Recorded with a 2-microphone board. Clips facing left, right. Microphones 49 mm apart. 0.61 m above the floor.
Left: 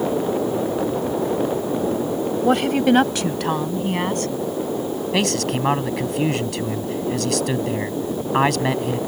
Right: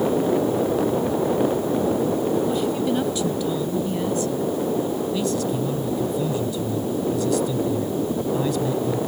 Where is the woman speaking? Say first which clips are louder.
Left 5 dB; 75° left (ahead or behind); by 4.3 s 65° left (ahead or behind).